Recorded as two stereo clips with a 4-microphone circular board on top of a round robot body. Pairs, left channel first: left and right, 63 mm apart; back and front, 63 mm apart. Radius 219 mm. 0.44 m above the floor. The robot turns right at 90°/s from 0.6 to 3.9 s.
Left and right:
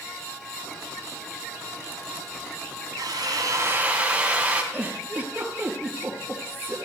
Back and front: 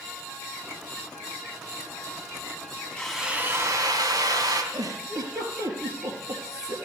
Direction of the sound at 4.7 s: 20° right.